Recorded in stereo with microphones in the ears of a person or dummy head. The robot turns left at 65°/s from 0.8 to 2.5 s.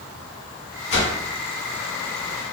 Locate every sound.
0.9 s a whoosh: 45° left (ahead or behind), 0.7 m; by 1.1 s 50° left (ahead or behind), 0.7 m